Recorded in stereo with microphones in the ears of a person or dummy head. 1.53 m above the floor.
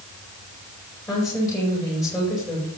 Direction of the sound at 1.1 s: 20° left (ahead or behind).